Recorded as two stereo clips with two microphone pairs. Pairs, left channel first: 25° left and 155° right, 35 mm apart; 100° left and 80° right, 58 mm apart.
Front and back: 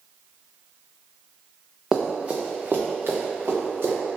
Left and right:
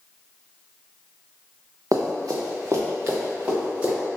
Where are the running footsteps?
75° right, 1.3 m; by 3.9 s 145° right, 3 m.